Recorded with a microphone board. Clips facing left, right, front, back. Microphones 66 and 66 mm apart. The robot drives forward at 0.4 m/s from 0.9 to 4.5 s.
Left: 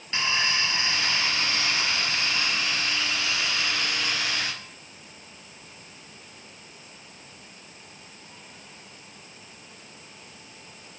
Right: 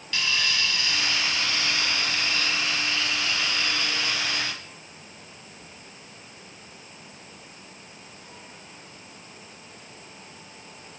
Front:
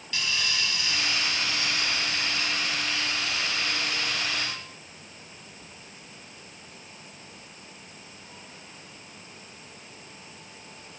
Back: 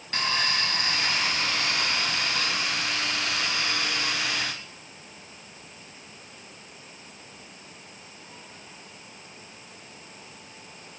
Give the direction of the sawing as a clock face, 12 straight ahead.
7 o'clock.